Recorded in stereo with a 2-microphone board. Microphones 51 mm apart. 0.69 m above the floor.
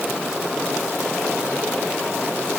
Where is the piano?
No piano in this recording.